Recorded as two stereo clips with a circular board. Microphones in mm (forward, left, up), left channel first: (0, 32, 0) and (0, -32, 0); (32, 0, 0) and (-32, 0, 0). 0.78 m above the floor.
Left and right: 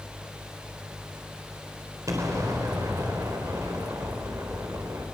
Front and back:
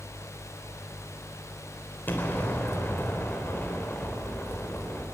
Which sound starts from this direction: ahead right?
An explosion, at 2.1 s.